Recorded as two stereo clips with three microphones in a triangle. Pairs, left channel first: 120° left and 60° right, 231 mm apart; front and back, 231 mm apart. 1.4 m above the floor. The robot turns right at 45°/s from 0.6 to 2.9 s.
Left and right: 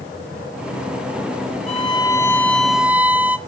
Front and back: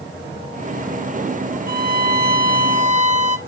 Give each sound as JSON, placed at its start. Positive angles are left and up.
{"t": 1.7, "sound": "a violin", "azimuth_deg": 165, "distance_m": 0.9}